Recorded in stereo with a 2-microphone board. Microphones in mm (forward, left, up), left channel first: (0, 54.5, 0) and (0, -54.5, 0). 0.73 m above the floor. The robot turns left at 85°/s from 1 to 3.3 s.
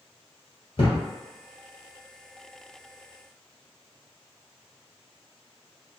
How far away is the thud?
About 1.5 m.